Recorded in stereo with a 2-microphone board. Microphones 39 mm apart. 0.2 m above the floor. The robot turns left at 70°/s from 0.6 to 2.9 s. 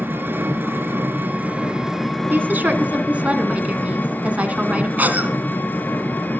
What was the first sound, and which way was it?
An engine running, 75° right.